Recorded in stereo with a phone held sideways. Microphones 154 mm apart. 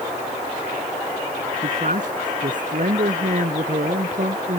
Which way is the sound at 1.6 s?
55° right (ahead or behind).